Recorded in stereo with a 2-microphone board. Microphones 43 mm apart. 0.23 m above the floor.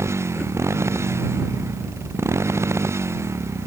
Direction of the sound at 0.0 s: 85° right.